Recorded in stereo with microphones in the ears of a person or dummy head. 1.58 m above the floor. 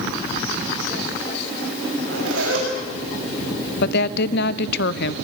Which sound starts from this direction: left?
A woman speaking, at 3.8 s.